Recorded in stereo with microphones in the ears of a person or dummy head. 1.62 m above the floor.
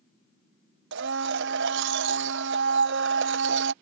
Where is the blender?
70° right (ahead or behind).